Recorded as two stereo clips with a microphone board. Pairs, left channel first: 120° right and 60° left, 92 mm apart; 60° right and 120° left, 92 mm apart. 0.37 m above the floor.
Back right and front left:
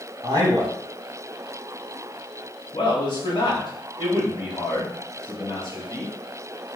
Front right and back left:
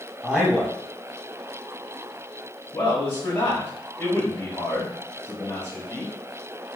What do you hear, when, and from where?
0.2 s a man speaking: 35° left, 1.6 m
2.7 s a man speaking: 105° right, 1.5 m